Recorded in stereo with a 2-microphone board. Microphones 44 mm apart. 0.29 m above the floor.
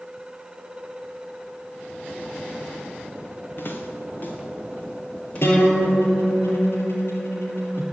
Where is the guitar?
70° left (ahead or behind), 5.5 m.